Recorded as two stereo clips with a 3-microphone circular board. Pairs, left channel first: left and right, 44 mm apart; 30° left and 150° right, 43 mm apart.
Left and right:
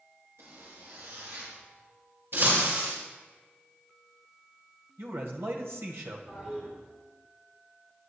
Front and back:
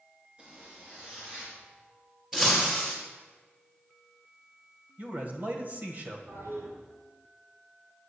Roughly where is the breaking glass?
Ahead right.